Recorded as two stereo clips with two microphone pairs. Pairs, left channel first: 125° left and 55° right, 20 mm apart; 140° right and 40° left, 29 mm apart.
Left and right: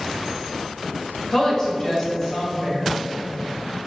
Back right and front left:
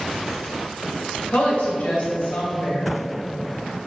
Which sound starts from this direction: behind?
A woman speaking, at 1.3 s.